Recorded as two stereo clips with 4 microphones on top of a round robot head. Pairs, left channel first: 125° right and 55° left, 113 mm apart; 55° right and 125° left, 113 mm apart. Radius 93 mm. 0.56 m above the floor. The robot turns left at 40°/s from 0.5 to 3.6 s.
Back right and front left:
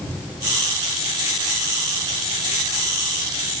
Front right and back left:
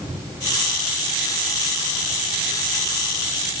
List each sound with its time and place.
Only background noise.